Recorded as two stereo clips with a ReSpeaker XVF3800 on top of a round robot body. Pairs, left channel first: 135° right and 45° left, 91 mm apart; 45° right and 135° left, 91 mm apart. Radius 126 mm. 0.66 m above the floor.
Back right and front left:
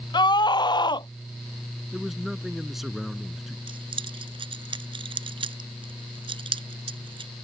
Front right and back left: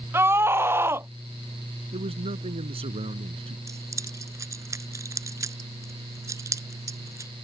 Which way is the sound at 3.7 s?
75° left.